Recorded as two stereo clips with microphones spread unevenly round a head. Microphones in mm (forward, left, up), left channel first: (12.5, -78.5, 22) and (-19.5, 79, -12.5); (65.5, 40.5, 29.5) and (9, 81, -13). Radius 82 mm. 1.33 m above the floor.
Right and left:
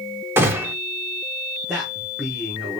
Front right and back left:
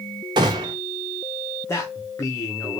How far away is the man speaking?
About 1.2 m.